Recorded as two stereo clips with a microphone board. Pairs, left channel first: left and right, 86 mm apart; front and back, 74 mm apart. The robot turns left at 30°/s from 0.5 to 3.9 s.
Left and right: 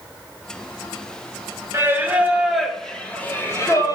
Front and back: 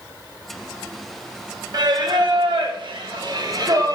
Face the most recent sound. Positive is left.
turn(degrees=140)